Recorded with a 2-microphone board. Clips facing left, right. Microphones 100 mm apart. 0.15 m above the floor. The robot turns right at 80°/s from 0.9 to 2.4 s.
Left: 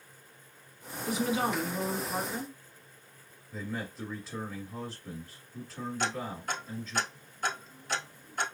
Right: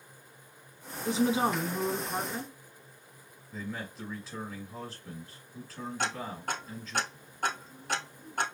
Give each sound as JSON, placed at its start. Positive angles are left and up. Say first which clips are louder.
{"t": 1.1, "sound": "a woman speaking", "louder": "right 3 dB", "side_deg": -25, "distance_m": 1.1}
{"t": 3.5, "sound": "a man speaking", "louder": "left 1 dB", "side_deg": 0, "distance_m": 1.7}
{"t": 6.0, "sound": "ticking", "louder": "even", "side_deg": -55, "distance_m": 1.4}